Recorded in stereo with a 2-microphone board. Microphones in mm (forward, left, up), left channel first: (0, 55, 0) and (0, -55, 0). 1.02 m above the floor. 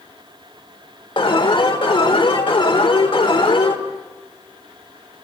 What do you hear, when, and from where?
1.2 s an alarm: 50° left (ahead or behind), 1.8 m